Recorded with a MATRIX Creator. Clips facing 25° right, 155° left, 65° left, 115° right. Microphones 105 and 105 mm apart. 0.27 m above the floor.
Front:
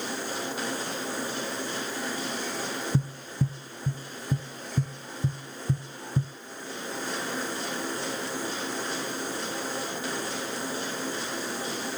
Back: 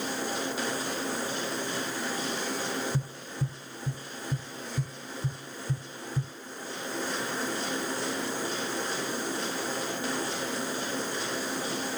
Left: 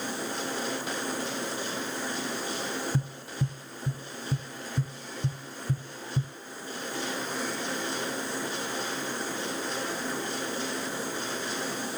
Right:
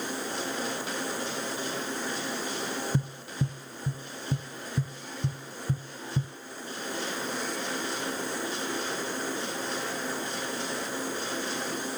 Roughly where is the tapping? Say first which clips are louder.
Front 5 dB, right 1 dB; ahead right.